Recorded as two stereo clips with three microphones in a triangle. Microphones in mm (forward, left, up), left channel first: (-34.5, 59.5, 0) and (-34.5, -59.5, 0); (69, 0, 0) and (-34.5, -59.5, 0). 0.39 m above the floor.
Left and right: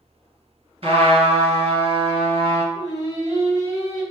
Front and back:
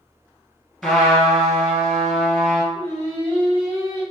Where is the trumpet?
60° right, 1.6 m.